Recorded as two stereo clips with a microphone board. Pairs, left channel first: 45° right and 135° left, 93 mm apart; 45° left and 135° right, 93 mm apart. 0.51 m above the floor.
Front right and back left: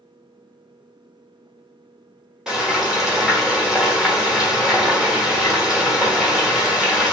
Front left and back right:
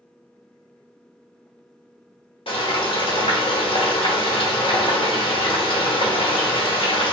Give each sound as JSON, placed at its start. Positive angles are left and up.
{"t": 2.5, "sound": "frying", "azimuth_deg": 50, "distance_m": 1.1}